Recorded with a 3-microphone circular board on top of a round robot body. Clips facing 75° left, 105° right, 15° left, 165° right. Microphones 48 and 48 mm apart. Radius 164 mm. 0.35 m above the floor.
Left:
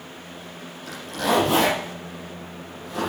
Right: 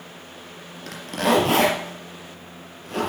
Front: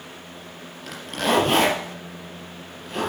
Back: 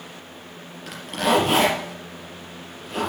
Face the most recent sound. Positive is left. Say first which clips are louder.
# right 2 dB, back 2 dB
turn(degrees=-75)